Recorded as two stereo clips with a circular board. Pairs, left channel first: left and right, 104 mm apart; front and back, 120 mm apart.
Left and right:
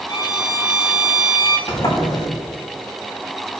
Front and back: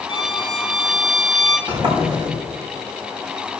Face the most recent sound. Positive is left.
turn(degrees=135)